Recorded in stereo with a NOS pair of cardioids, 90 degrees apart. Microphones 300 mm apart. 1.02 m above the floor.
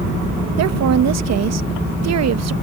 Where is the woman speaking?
65° right.